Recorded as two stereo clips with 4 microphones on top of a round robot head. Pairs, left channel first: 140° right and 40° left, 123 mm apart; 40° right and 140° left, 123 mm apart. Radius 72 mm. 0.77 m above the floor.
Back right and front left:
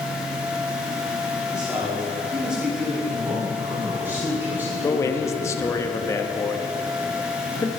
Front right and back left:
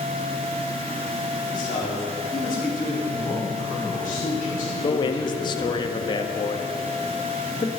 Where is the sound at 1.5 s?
40° right, 4.5 m.